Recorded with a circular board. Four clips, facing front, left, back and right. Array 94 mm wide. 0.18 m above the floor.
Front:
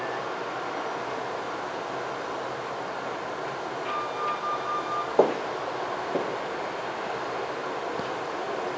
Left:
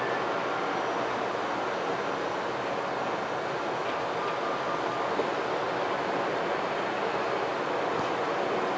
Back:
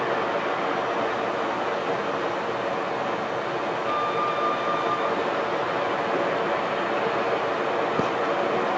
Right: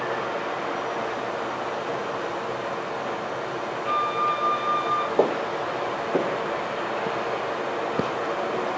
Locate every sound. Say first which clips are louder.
0.0 s running water: right 1 dB, back 7 dB; straight behind, 9 m
3.9 s a flute: right 6 dB, back 4 dB; 115° right, 1.3 m
5.2 s footsteps: right 6 dB, front 1 dB; 40° right, 1.1 m; by 8.1 s 130° right, 1.8 m